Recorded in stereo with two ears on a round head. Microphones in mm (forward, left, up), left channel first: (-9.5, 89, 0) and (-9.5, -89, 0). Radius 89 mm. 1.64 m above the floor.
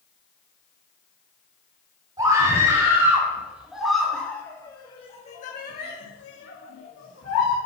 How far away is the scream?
About 3.5 m.